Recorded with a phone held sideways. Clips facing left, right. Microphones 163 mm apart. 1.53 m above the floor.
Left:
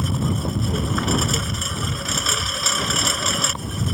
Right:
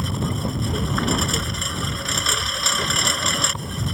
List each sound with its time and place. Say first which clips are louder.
0.0 s a lawn mower: left 2 dB; centre (ahead or behind)